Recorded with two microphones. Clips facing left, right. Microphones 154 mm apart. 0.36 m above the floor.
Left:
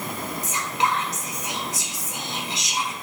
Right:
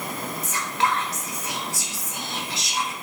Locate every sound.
0.4 s whispering: 20° left (ahead or behind), 0.9 m